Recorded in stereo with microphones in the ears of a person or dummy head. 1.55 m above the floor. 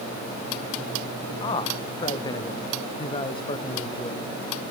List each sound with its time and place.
1.4 s a man speaking: 25° left (ahead or behind), 1.5 m